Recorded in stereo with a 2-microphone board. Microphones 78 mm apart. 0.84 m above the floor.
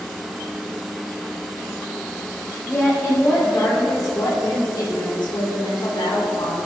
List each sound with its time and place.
2.7 s a woman speaking: 20° left (ahead or behind), 4 m; by 6.6 s 70° left (ahead or behind), 3.5 m